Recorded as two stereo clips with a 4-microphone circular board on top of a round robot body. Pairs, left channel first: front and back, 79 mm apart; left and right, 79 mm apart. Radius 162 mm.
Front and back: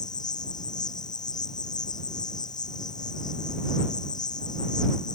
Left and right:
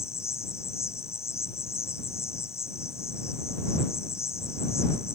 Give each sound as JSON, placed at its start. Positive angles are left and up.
{"t": 0.0, "sound": "an insect", "azimuth_deg": 35}